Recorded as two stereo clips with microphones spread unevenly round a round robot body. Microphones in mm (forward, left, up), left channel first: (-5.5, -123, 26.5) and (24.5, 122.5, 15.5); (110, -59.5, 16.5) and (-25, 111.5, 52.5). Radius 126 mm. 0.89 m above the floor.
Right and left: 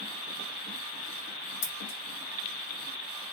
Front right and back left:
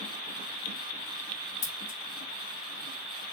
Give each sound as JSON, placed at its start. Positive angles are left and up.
{"t": 1.6, "sound": "scissors", "azimuth_deg": -70, "distance_m": 1.7}